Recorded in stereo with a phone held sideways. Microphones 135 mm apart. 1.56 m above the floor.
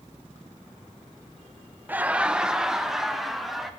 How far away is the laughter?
About 0.6 m.